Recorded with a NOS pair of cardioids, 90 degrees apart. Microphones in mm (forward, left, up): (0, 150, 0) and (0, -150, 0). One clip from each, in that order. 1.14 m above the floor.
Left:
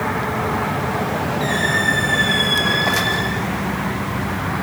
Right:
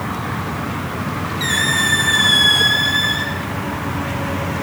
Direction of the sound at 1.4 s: 70° right.